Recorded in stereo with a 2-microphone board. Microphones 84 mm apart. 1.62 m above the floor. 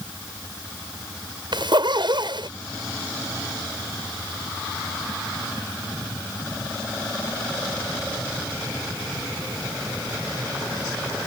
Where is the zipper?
65° right (ahead or behind).